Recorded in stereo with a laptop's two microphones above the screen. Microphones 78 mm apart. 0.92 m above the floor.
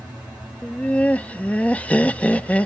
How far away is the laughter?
About 0.7 m.